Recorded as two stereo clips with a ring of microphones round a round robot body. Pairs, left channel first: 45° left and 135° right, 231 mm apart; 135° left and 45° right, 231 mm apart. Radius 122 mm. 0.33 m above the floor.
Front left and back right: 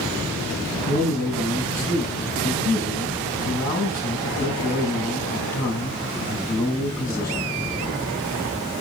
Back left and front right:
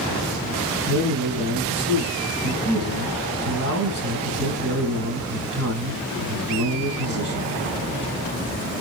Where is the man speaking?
30° right, 4 m.